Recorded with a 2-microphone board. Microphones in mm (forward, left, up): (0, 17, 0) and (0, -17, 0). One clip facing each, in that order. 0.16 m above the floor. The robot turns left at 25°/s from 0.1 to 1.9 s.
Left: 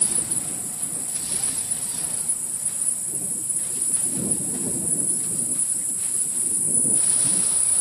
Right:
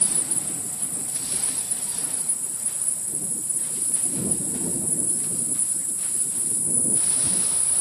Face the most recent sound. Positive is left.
turn(degrees=125)